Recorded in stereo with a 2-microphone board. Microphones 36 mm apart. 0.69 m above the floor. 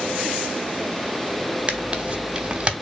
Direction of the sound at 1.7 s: 35° right (ahead or behind).